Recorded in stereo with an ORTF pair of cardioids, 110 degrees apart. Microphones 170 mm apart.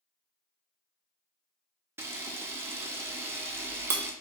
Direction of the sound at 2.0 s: 15° right.